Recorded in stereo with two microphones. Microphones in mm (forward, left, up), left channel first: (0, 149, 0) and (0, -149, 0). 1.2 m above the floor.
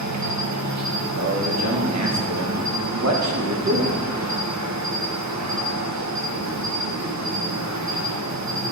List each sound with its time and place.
0.0 s an insect: 65° right (ahead or behind), 1.0 m
1.1 s a man speaking: 65° right (ahead or behind), 1.5 m